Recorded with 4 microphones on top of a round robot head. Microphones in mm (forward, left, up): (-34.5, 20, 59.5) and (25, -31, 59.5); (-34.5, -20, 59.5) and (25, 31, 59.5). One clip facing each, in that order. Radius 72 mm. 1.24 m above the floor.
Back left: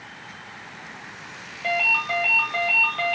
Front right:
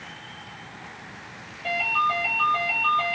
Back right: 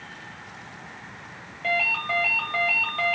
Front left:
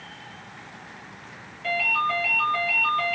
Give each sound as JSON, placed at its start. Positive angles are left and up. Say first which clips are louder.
{"t": 1.6, "sound": "a ringtone", "louder": "front right 1 dB, front left 2 dB", "azimuth_deg": 170, "distance_m": 1.0}